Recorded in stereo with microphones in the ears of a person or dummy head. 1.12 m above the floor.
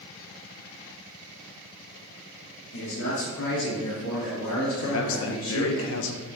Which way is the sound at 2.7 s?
55° left (ahead or behind).